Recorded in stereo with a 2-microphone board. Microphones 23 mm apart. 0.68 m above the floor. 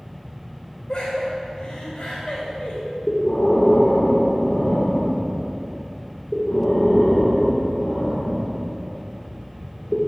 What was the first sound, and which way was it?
Laughter, 40° left (ahead or behind).